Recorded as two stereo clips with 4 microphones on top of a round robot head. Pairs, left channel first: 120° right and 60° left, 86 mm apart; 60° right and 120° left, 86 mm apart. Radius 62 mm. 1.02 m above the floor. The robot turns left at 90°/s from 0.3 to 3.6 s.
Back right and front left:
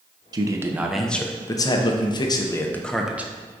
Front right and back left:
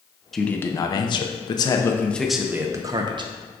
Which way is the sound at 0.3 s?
30° left.